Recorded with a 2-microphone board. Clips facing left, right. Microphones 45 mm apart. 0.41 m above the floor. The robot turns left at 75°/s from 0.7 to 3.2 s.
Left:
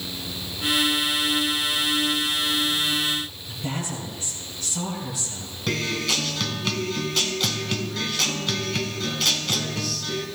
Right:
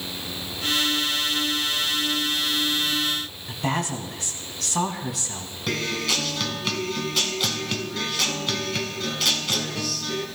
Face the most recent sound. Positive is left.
turn(degrees=0)  # may be behind; listen again after turning